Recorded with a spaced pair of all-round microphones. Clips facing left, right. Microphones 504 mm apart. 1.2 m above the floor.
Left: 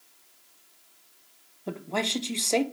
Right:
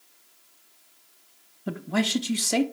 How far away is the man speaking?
About 0.7 m.